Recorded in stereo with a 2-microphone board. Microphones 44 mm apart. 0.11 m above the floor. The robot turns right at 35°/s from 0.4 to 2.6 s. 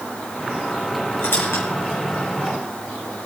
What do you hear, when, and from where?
1.2 s a squeak: 65° left (ahead or behind), 3 m